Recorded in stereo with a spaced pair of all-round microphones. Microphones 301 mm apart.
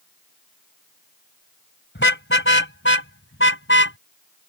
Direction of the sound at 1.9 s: 40° left (ahead or behind).